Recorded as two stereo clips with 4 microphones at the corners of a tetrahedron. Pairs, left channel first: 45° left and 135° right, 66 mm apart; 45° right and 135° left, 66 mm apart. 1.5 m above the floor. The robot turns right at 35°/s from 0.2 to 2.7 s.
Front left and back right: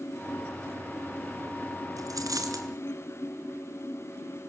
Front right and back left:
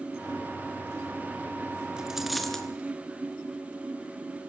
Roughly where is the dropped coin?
Behind right.